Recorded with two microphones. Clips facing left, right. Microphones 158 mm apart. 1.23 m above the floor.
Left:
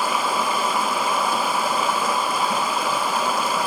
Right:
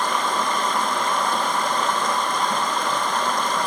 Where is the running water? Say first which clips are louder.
Left 1 dB; 5° left (ahead or behind), 1.0 m.